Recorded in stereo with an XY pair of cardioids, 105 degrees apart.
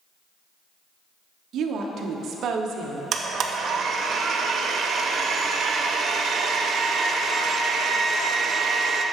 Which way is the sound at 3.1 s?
60° right.